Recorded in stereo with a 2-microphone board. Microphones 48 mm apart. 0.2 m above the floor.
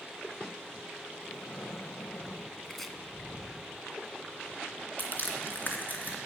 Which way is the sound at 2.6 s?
5° left (ahead or behind).